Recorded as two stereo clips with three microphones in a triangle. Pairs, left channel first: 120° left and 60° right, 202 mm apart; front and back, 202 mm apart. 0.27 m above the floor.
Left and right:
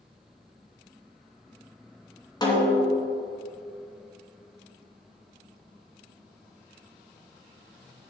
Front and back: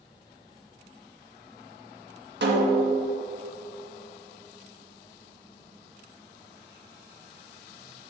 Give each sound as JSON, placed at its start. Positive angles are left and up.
{"t": 2.4, "sound": "a snare drum", "azimuth_deg": -175, "distance_m": 2.5}